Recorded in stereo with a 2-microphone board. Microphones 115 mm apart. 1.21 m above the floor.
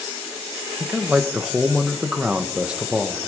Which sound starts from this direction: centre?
A man speaking, at 0.8 s.